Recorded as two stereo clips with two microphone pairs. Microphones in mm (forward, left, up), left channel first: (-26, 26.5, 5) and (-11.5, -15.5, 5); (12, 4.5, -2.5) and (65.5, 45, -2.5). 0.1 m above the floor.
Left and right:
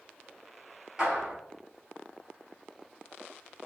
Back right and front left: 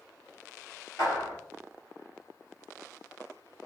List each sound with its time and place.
1.0 s a clap: 145° right, 1.8 m